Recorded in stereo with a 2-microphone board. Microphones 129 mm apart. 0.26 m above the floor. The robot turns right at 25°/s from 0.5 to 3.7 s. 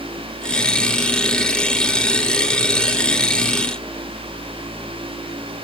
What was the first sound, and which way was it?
Only background noise.